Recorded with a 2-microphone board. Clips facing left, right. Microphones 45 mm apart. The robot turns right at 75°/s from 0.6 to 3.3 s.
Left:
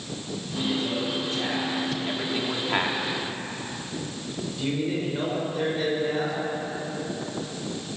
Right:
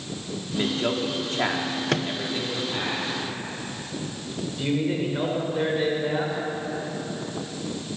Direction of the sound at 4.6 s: 20° right (ahead or behind).